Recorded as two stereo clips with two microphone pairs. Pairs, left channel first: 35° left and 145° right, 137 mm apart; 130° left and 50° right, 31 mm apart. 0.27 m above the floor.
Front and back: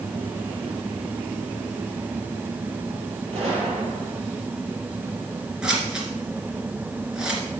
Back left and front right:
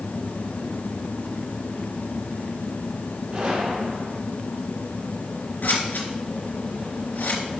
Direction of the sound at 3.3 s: 105° right.